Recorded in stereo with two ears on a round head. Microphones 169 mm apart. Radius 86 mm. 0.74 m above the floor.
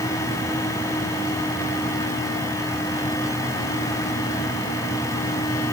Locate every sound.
Only background noise.